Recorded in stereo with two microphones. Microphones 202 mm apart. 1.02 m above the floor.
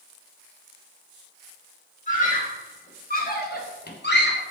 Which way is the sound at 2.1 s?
40° left (ahead or behind).